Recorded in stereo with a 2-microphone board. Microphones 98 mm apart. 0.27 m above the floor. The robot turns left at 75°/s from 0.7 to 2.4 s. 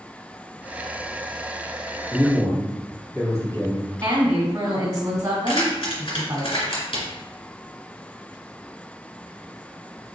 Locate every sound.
2.1 s a man speaking: 15° left (ahead or behind), 2 m; by 3.9 s 35° left (ahead or behind), 2 m
4.0 s a woman speaking: 40° right (ahead or behind), 1.4 m
5.5 s keys jangling: 70° left (ahead or behind), 2 m